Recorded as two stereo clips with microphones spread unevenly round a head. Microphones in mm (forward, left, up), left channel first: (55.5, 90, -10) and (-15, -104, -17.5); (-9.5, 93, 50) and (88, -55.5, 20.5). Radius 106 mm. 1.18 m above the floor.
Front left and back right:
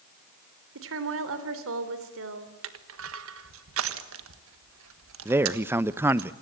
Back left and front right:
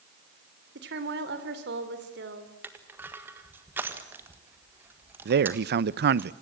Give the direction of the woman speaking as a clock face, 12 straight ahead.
3 o'clock.